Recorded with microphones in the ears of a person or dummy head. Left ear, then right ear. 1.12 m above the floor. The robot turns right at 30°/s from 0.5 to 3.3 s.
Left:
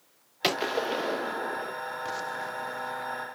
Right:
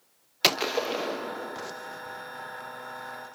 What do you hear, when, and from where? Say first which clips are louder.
0.4 s a gunshot: right 2 dB; 25° right, 0.8 m; by 1.7 s 10° left, 0.8 m